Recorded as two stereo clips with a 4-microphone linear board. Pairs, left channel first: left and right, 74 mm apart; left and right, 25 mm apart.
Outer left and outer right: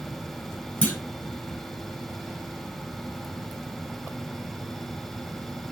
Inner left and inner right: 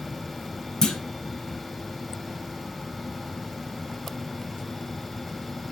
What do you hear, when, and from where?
0.8 s a clunk: 15° left (ahead or behind), 1.3 m